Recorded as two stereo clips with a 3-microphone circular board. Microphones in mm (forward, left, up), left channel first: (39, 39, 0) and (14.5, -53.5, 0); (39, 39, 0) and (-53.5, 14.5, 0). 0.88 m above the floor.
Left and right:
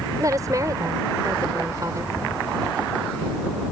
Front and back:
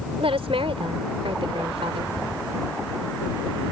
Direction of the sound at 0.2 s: 155° right.